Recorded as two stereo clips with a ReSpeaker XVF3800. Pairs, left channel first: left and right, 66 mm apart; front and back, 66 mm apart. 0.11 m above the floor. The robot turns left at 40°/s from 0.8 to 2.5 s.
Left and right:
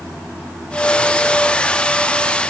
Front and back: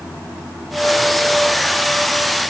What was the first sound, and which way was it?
Only background noise.